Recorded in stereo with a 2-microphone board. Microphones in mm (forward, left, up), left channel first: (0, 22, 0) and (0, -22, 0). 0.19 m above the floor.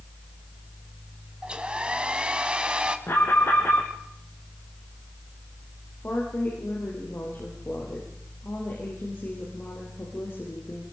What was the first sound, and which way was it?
A hair dryer, 25° right (ahead or behind).